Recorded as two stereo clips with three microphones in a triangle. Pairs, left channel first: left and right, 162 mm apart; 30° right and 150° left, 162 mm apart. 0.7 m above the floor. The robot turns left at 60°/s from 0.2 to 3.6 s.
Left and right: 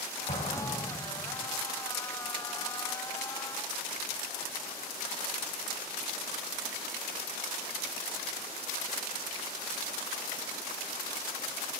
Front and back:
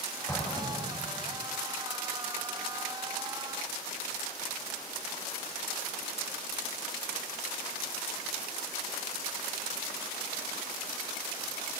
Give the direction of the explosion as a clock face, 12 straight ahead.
11 o'clock.